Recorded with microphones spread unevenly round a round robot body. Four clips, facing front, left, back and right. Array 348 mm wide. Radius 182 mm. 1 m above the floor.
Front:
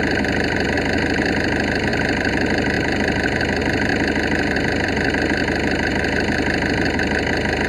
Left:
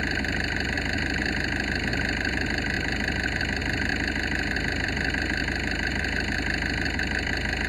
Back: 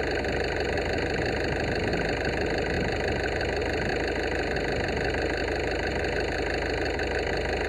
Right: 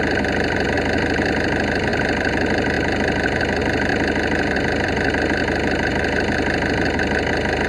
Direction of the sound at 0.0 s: 50° right.